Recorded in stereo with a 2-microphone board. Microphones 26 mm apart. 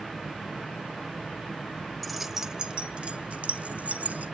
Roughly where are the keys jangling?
Centre.